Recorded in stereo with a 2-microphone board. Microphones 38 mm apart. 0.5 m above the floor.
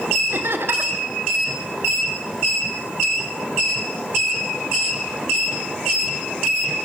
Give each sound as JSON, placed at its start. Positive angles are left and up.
{"t": 0.3, "sound": "laughter", "side_deg": -75, "distance_m": 3.0}